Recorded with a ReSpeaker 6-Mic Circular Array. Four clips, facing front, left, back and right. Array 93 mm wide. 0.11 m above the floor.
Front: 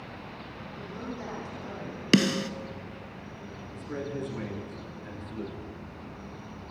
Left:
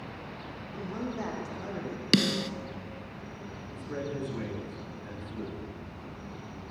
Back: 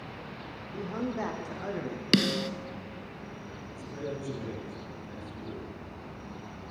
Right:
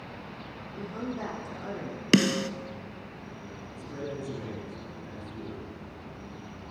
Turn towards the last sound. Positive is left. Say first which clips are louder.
# left 2 dB, front 2 dB
turn(degrees=30)